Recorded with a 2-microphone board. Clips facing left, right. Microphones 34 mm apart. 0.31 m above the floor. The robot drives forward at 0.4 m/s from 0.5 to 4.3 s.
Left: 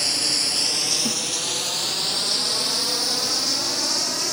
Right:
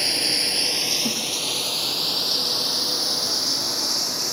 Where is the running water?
20° right (ahead or behind), 0.9 m; by 4.3 s 5° right (ahead or behind), 2.5 m.